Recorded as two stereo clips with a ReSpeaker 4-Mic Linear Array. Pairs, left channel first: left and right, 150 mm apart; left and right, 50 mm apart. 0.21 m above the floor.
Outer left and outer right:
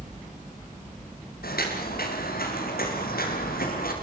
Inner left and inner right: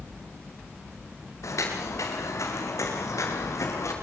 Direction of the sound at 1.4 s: 90° left.